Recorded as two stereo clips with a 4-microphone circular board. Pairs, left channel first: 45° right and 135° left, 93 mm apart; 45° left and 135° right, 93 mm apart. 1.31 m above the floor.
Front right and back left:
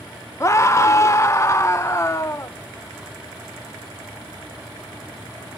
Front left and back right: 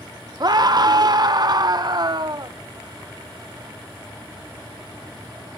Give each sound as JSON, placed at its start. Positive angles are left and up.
{"t": 0.4, "sound": "a scream", "azimuth_deg": -100, "distance_m": 0.6}